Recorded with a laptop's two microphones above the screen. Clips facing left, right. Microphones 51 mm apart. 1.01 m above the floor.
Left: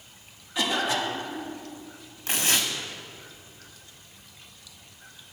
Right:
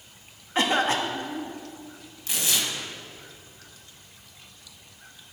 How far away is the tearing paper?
About 1.2 m.